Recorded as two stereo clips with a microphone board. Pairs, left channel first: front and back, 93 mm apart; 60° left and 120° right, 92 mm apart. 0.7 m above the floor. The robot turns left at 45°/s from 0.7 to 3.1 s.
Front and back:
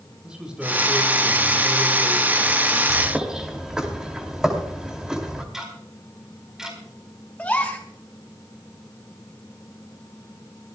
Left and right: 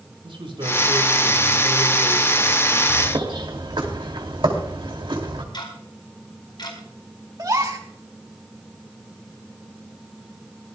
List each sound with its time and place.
0.2 s a man speaking: 100° right, 5 m; by 2.8 s 170° left, 5 m
2.9 s a bird: 85° right, 2.5 m; by 5.4 s 95° right, 2.5 m
5.5 s ticking: 95° left, 4.5 m
7.4 s a gasp: 75° right, 2.5 m